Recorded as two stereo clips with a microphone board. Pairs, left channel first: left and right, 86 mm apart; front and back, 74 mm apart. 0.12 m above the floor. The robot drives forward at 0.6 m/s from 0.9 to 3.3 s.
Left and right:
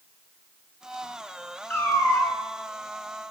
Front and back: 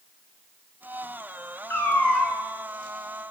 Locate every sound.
1.7 s a cat meowing: 35° left, 0.5 m; by 2.4 s 115° left, 0.5 m